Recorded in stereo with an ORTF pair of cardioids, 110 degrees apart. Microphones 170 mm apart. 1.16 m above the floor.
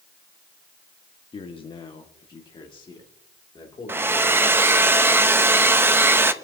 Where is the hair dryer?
15° right, 0.9 m.